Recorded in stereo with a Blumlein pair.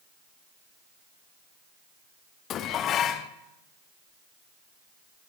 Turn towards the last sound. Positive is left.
turn(degrees=30)